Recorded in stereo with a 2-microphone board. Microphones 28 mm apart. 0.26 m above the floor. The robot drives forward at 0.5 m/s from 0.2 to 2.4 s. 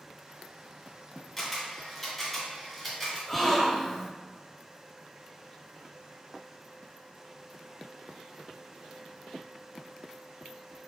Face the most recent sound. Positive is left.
turn(degrees=5)  # may be behind; listen again after turning